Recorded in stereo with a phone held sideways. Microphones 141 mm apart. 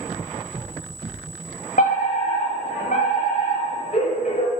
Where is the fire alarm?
70° left (ahead or behind), 9.5 m.